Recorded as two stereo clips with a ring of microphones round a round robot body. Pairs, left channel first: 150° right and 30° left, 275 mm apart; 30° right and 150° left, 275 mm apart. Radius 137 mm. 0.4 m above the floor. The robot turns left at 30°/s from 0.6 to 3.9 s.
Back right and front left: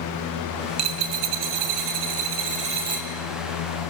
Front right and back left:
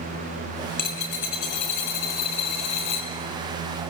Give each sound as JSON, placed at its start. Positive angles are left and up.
{"t": 0.8, "sound": "a dropped coin", "azimuth_deg": 30, "distance_m": 4.5}